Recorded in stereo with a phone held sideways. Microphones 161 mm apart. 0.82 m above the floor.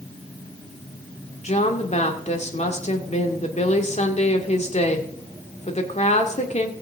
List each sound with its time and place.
1.4 s a woman speaking: 45° left (ahead or behind), 2 m